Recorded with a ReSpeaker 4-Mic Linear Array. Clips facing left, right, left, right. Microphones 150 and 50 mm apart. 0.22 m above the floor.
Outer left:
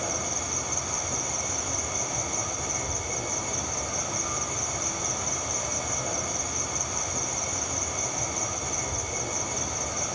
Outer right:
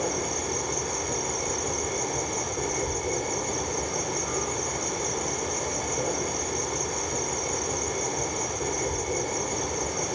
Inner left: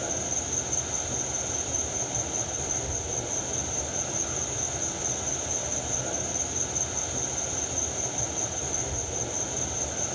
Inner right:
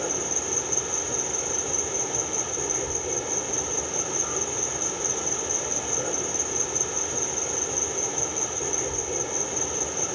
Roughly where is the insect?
Right.